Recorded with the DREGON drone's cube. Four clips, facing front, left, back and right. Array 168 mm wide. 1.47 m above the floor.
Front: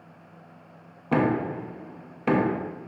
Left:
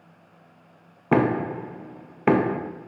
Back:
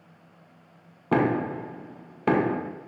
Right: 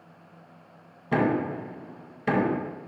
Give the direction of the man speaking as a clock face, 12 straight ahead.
No man speaking in this recording.